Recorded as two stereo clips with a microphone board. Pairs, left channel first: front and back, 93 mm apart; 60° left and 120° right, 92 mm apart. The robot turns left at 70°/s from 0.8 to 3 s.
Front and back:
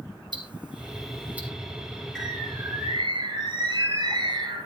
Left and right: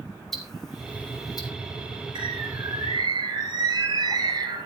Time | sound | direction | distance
0.3 | ticking | 145° left | 2.5 m
2.1 | a bird | 85° right | 9 m